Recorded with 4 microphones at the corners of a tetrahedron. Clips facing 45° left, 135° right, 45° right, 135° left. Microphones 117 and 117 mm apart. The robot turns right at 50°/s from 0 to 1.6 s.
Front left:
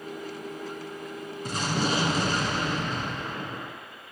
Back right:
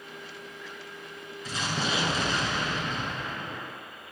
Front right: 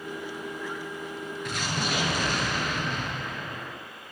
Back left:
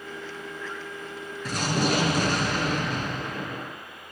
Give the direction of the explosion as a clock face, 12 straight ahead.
9 o'clock.